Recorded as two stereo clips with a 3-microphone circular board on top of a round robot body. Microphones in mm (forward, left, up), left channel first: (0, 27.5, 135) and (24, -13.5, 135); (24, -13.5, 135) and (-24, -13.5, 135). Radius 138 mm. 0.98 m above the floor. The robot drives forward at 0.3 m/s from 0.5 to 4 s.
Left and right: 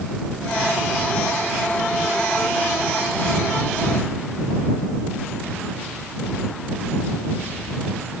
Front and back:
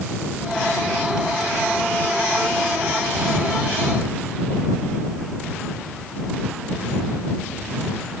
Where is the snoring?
I don't hear snoring.